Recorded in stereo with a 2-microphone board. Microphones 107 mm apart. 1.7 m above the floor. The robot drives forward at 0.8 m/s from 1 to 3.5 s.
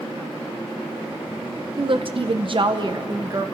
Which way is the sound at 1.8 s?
50° right (ahead or behind).